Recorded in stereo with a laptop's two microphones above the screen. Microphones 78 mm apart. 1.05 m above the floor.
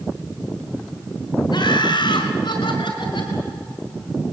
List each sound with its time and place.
1.5 s laughter: 65° left (ahead or behind), 4 m; by 3.3 s 75° left (ahead or behind), 5.5 m